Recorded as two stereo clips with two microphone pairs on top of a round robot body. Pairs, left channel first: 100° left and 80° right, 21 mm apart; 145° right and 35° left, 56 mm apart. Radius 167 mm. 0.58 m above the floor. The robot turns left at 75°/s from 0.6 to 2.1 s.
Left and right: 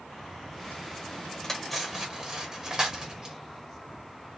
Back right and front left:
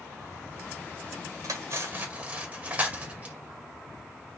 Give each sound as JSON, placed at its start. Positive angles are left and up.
{"t": 1.4, "sound": "cutlery clinking", "azimuth_deg": 20, "distance_m": 1.7}